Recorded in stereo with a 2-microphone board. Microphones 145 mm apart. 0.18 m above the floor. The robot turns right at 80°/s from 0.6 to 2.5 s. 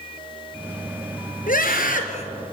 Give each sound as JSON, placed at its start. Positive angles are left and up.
{"t": 1.5, "sound": "a scream", "azimuth_deg": 70, "distance_m": 3.0}